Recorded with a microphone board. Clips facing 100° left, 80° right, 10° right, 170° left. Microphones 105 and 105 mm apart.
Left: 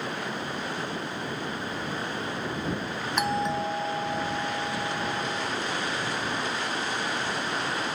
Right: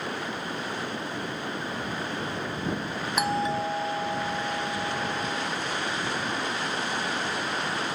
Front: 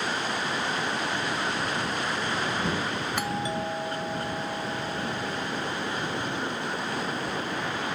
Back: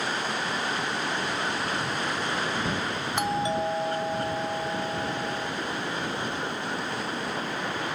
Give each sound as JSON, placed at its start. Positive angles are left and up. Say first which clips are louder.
{"t": 3.2, "sound": "a doorbell", "louder": "even, back 6 dB", "azimuth_deg": -160}